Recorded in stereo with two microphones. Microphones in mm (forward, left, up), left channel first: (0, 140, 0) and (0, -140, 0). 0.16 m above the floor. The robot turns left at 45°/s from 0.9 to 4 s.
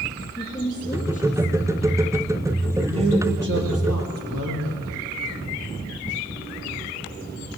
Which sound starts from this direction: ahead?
A man speaking, at 2.8 s.